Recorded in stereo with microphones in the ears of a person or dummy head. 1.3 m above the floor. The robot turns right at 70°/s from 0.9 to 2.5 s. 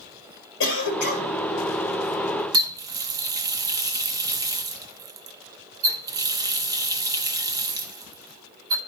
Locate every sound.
0.6 s a cough: 120° left, 1.6 m; by 1.4 s 150° left, 1.6 m
2.5 s a running tap: 20° right (ahead or behind), 0.8 m